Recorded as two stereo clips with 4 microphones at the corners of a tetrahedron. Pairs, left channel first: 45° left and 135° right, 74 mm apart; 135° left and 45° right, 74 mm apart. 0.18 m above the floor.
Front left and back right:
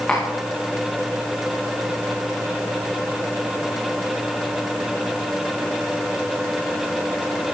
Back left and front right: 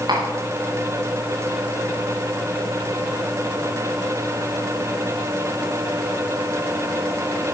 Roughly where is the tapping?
Ahead right.